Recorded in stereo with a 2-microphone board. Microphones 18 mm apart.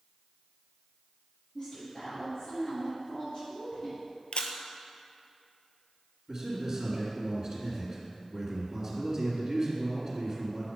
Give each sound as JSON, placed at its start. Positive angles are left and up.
{"t": 1.6, "sound": "a woman speaking", "side_deg": 50, "distance_m": 3.0}
{"t": 4.3, "sound": "a camera shutter", "side_deg": 75, "distance_m": 0.9}
{"t": 6.3, "sound": "a man speaking", "side_deg": -20, "distance_m": 2.5}